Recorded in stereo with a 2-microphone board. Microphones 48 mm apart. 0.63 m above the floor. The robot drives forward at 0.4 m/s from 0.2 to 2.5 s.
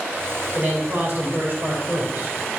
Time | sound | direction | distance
0.6 | a man speaking | 40° right (ahead or behind) | 3 m